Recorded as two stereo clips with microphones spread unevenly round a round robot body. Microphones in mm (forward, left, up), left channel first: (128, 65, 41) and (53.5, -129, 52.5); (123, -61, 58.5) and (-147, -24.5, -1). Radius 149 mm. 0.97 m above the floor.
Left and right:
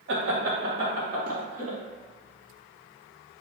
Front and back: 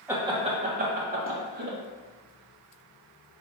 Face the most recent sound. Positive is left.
turn(degrees=-170)